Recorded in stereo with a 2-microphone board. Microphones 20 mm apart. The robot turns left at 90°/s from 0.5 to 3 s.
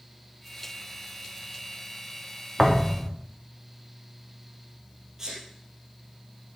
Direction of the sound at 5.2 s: 25° right (ahead or behind).